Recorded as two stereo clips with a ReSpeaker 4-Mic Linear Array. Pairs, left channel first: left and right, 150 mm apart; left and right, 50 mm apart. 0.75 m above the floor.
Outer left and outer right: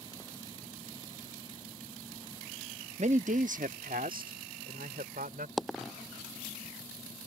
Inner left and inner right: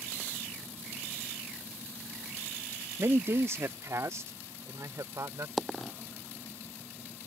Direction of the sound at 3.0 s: 50° right (ahead or behind).